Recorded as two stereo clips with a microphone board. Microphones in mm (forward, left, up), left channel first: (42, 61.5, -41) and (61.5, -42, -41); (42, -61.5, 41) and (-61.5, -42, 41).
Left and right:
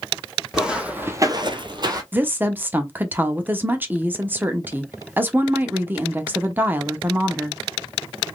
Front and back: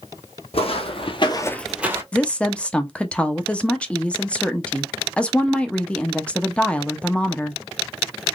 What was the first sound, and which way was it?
Footsteps, 5° left.